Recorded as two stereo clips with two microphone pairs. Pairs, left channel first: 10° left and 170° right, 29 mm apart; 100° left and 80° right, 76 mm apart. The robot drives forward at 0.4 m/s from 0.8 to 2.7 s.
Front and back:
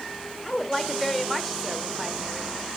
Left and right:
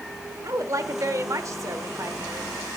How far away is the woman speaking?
About 1.2 m.